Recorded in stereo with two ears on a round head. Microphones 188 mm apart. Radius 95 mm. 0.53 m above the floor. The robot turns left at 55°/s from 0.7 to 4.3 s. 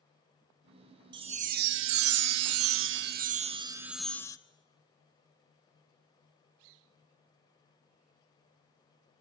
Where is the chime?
20° right, 0.6 m; by 4.4 s 165° left, 0.6 m.